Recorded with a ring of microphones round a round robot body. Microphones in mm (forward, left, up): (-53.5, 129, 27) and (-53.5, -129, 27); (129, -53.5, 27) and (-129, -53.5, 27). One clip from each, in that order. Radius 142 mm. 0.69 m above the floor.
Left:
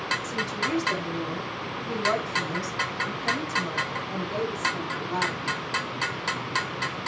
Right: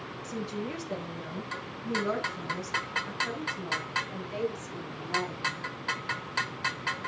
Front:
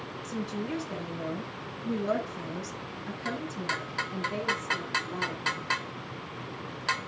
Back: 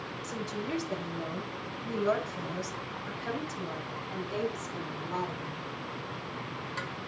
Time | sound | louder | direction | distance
0.2 | a woman speaking | left 8 dB, front 1 dB | 135° left | 8 m